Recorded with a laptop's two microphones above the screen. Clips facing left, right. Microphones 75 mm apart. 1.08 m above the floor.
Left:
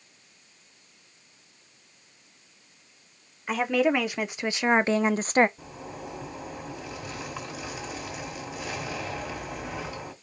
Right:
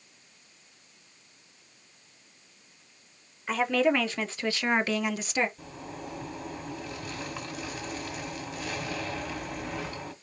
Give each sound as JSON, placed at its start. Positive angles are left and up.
{"t": 3.5, "sound": "a woman speaking", "side_deg": 5, "distance_m": 1.4}
{"t": 5.6, "sound": "a zipper", "side_deg": 10, "distance_m": 1.9}